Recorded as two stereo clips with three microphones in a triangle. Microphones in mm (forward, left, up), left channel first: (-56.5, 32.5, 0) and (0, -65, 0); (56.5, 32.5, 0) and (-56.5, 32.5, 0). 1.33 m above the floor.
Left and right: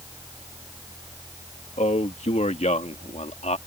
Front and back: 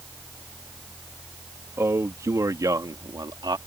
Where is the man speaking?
110° left; by 3.6 s 130° left.